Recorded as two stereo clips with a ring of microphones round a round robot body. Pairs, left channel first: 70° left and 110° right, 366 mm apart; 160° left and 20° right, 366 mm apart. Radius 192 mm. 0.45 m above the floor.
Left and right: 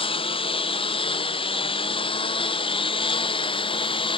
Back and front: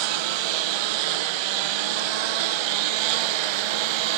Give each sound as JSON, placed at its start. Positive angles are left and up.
{"t": 0.0, "sound": "a lawn mower", "azimuth_deg": -10}